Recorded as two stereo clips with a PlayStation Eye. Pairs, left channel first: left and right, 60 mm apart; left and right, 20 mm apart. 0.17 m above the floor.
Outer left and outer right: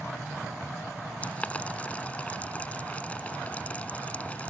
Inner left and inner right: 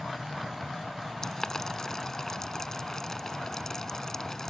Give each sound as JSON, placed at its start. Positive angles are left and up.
{"t": 1.2, "sound": "boiling", "side_deg": 25}